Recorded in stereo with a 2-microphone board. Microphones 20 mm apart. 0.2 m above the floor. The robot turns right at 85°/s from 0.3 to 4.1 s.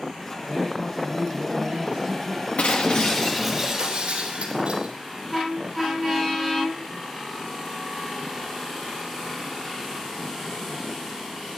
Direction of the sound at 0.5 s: 145° left.